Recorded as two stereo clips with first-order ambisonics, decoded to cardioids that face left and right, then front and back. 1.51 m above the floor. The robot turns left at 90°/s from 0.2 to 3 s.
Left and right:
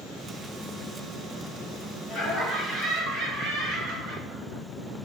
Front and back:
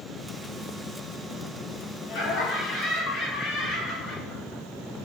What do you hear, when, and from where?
2.1 s laughter: 10° right, 4 m; by 5.0 s 90° right, 4 m